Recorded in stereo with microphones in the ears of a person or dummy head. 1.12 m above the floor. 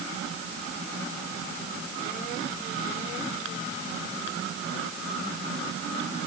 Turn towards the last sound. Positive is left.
No sound to turn to.